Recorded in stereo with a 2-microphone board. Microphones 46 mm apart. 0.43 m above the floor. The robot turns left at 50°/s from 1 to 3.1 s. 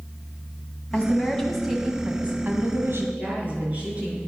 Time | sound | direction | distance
0.9 | a woman speaking | 30° left | 2.5 m
3.2 | a woman speaking | 30° right (ahead or behind) | 5.5 m